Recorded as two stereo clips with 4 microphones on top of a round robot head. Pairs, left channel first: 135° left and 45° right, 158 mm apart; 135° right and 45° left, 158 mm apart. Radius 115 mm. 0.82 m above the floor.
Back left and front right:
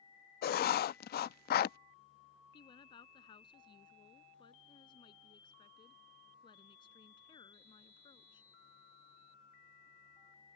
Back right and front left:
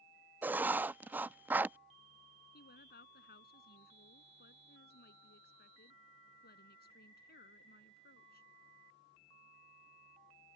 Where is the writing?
120° left.